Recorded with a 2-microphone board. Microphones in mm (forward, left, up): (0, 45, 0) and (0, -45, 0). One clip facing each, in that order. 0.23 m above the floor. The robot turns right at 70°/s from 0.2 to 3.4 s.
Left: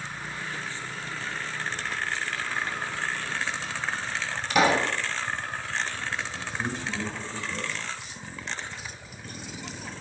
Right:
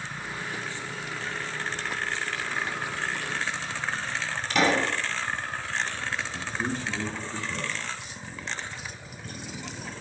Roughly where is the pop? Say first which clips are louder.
Left 2 dB; centre.